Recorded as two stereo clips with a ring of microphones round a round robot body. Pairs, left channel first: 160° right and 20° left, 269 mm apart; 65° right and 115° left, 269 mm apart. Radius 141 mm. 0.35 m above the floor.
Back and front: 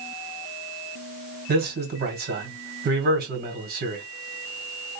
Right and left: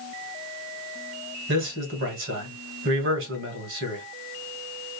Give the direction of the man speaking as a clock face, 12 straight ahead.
10 o'clock.